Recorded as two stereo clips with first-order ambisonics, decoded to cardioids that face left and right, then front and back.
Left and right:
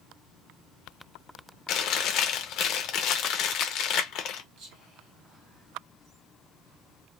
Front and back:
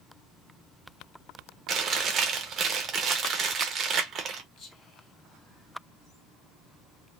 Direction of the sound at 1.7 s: 125° left.